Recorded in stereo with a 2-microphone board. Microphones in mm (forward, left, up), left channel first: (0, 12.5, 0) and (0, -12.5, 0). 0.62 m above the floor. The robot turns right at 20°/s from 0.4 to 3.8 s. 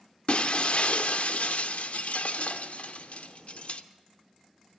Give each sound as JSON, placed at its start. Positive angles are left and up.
{"t": 0.3, "sound": "breaking glass", "azimuth_deg": 55, "distance_m": 0.7}